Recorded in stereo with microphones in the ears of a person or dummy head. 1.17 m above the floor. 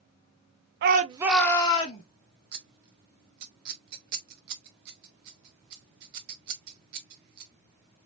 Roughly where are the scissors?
Right.